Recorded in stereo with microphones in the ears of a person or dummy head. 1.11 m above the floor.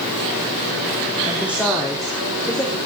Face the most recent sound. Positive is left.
turn(degrees=10)  # may be behind; listen again after turning